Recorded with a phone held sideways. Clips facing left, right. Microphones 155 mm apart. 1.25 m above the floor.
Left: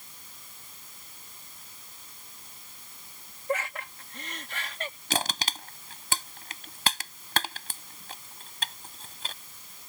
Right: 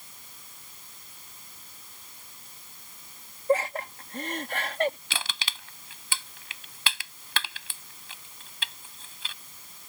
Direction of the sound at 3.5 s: 35° right (ahead or behind).